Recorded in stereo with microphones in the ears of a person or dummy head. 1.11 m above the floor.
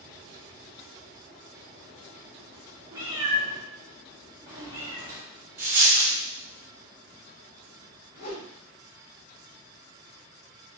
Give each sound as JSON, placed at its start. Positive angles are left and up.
{"t": 2.9, "sound": "a cat meowing", "side_deg": -25, "distance_m": 1.0}
{"t": 5.6, "sound": "a dropped coin", "side_deg": -20, "distance_m": 0.6}
{"t": 8.1, "sound": "a whoosh", "side_deg": 60, "distance_m": 1.8}